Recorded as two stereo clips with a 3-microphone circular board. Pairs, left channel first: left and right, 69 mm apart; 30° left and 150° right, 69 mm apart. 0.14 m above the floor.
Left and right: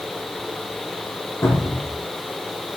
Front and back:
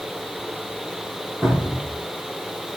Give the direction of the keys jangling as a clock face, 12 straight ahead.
I don't hear keys jangling.